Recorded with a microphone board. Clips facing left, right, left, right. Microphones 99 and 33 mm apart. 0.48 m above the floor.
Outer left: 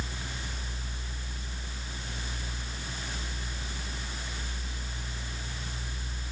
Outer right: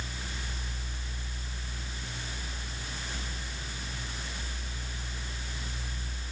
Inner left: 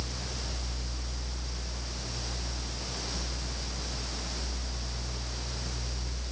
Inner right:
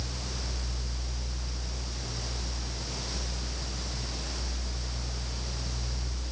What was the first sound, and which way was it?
Only background noise.